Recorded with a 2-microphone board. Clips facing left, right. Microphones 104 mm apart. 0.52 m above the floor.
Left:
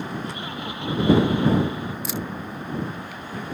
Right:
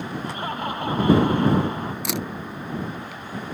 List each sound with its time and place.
0.2 s laughter: 50° right (ahead or behind)
2.0 s a camera shutter: 80° right